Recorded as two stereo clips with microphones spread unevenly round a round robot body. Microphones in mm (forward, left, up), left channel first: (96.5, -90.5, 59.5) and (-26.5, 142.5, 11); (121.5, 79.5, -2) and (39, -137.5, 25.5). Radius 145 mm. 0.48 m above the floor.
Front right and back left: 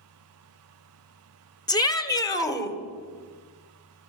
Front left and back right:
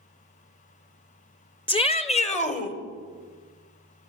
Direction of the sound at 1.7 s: 20° left.